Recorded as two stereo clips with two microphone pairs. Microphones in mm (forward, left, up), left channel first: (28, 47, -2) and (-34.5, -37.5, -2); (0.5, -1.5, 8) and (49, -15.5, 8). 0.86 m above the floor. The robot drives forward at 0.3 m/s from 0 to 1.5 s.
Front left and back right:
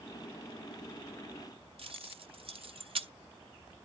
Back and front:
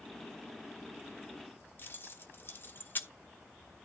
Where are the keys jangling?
155° right, 0.9 m.